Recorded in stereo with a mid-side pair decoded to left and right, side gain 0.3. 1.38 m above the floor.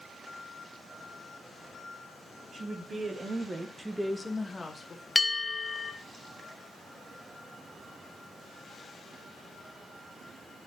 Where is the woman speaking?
60° right, 3 m; by 5.0 s 50° left, 1.8 m.